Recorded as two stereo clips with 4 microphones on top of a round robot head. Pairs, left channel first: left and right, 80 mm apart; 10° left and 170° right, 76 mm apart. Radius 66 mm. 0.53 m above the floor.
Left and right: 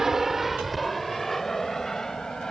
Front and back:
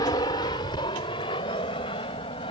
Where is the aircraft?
5° right; by 2.5 s 5° left.